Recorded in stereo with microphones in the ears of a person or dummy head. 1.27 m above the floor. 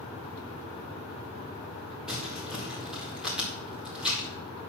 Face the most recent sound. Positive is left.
turn(degrees=5)  # may be behind; listen again after turning